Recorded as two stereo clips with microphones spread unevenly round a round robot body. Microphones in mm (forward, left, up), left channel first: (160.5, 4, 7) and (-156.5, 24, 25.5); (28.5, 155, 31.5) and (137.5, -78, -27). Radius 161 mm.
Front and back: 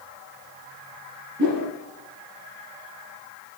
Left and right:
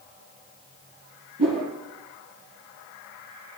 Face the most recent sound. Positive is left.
turn(degrees=-120)